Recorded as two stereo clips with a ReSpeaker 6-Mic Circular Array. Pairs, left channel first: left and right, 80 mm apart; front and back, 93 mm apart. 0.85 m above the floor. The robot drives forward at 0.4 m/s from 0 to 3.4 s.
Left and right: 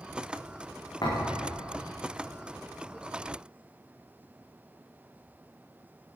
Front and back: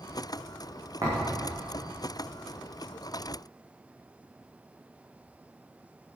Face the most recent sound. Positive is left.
turn(degrees=135)